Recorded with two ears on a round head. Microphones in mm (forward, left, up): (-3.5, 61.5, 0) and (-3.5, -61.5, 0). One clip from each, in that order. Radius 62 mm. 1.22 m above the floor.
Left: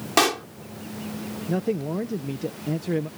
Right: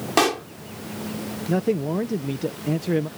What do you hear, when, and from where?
0.2 s a pop: 25° left (ahead or behind)
1.5 s a man speaking: 10° right (ahead or behind)